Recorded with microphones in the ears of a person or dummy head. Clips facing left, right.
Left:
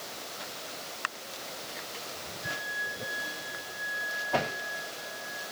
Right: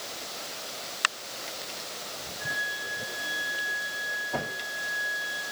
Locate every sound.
2.4 s a flute: 15° right (ahead or behind), 5.5 m